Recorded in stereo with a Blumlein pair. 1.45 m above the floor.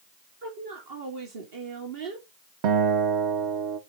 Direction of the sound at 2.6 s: 45° right.